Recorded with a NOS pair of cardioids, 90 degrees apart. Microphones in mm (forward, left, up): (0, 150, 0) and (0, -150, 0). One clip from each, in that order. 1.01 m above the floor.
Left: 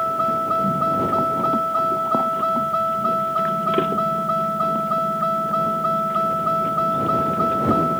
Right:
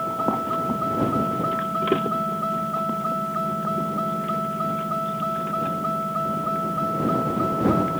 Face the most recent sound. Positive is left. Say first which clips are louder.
# left 4 dB
turn(degrees=40)